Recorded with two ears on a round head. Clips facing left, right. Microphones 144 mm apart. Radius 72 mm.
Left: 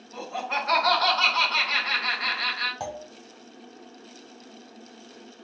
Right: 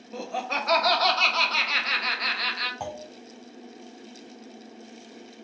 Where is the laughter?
50° right (ahead or behind), 1.0 m.